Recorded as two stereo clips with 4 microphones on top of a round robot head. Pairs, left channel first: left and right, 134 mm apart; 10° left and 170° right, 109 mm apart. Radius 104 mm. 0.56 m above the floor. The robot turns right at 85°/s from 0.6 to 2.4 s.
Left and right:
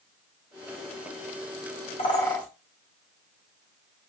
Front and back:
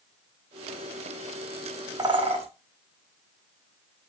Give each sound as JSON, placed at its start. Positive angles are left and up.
{"t": 2.0, "sound": "a bird", "azimuth_deg": 135, "distance_m": 1.7}